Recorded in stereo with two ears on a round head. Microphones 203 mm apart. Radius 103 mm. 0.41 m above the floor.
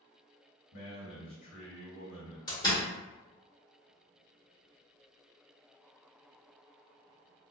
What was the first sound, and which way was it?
A man speaking, 40° left (ahead or behind).